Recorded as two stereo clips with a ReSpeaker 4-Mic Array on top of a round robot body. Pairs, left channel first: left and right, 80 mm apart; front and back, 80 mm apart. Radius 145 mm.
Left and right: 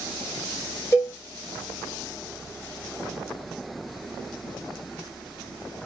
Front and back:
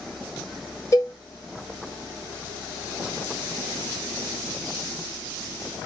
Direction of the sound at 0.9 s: 40° left.